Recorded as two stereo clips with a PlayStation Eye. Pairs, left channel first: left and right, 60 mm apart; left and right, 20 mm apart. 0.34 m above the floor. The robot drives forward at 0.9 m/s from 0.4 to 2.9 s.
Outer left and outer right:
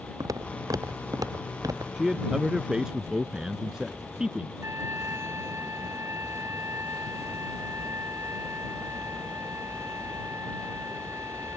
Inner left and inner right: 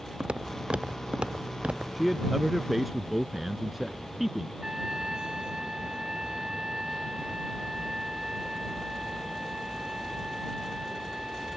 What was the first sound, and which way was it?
Footsteps, 70° right (ahead or behind).